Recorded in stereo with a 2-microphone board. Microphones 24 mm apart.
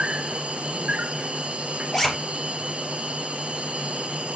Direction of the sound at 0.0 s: 65° right (ahead or behind).